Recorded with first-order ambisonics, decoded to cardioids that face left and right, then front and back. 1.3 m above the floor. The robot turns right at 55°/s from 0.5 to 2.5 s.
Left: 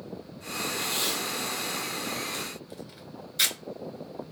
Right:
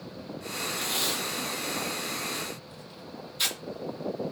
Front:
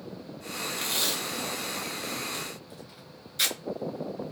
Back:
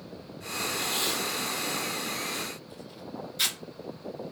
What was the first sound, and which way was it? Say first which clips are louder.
Tape being pulled: right 1 dB, front 2 dB; 15° right.